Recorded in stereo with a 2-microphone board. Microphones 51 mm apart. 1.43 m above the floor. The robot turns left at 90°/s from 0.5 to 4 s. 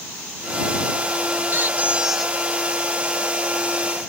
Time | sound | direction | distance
1.5 | a squeak | 115° right | ?